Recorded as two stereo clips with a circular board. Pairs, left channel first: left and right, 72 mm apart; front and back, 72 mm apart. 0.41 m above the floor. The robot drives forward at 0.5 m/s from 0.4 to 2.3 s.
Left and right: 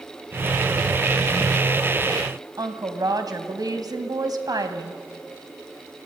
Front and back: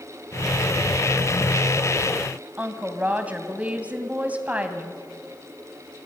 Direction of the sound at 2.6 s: 110° right.